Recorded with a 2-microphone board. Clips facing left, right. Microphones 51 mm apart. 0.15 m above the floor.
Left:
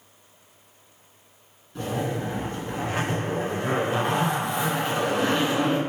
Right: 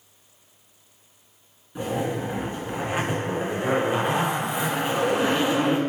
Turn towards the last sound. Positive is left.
turn(degrees=-15)  # may be behind; listen again after turning